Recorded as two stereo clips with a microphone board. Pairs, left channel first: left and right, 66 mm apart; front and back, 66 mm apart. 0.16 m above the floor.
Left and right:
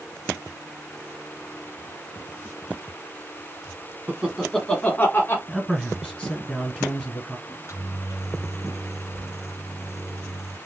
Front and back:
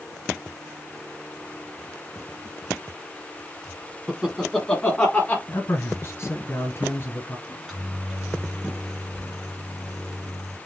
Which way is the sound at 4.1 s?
115° right.